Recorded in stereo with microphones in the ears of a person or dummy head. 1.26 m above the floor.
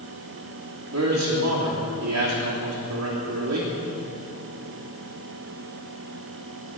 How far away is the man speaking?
About 2.5 m.